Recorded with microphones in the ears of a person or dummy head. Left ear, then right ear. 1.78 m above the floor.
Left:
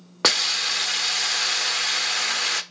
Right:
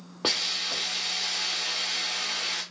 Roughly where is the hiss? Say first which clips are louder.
Left 6 dB; left.